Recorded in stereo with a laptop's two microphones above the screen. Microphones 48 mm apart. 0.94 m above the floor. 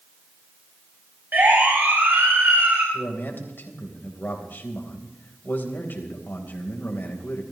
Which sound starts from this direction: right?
A siren, at 1.3 s.